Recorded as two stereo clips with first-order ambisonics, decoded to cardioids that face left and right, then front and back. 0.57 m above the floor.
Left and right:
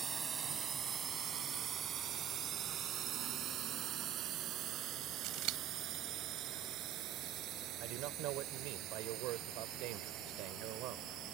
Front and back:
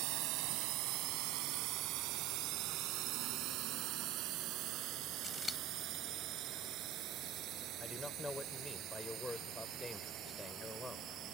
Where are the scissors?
75° right.